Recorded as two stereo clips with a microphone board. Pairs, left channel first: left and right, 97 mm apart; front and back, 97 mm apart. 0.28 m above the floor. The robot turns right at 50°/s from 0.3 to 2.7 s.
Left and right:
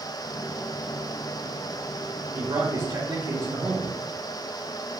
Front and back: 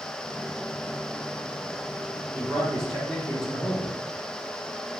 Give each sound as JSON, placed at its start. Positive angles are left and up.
{"t": 2.3, "sound": "a man speaking", "azimuth_deg": -110, "distance_m": 1.9}